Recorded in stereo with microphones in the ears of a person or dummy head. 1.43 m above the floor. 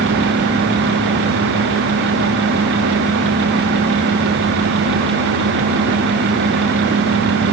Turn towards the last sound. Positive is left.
No sound to turn to.